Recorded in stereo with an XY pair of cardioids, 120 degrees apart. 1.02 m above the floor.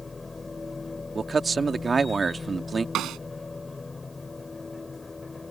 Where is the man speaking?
25° right.